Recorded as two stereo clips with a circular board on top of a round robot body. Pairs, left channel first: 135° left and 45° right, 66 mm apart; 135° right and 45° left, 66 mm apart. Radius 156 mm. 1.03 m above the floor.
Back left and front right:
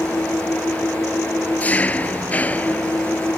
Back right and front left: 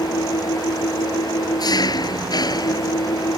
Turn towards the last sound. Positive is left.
turn(degrees=-155)